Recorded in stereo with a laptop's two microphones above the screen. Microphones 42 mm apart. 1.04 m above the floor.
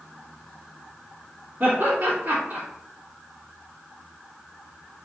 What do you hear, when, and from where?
1.6 s laughter: 45° right (ahead or behind), 1.9 m